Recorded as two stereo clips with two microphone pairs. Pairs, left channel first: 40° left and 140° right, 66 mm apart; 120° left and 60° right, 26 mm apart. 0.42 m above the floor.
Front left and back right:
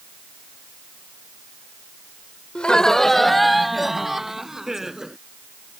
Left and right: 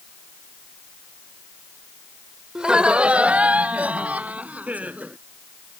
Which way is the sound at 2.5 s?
25° right.